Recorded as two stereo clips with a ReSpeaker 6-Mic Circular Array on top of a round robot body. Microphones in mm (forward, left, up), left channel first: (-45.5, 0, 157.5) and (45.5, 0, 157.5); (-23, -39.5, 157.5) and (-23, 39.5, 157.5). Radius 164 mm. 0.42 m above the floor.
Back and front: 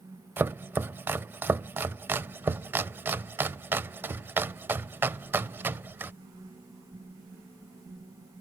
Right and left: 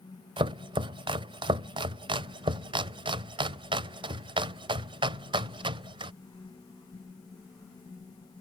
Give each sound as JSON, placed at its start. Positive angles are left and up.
{"t": 0.4, "sound": "chopping", "azimuth_deg": 70}